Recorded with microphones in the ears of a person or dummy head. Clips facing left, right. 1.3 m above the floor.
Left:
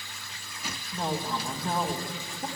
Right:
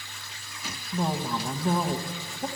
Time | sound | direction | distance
0.9 | a woman speaking | 5° right (ahead or behind) | 1.0 m